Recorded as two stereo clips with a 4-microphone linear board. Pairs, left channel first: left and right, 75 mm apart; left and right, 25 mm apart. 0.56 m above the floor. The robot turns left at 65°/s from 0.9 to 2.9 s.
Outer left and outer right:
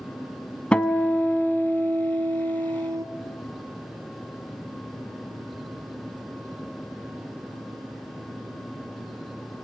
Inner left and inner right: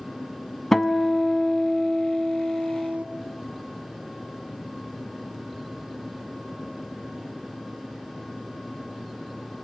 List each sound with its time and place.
0.7 s a guitar: 15° left, 0.8 m; by 3.0 s 115° right, 0.8 m